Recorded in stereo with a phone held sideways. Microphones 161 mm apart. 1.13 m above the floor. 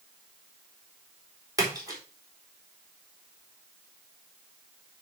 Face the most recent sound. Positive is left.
turn(degrees=-20)  # may be behind; listen again after turning